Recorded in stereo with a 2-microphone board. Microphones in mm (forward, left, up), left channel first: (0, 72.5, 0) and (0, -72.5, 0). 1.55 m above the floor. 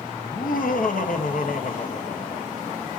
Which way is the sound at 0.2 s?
70° left (ahead or behind).